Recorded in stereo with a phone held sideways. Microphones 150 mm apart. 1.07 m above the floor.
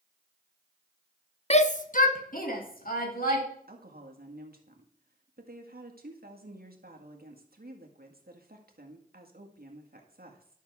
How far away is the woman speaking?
About 1.8 m.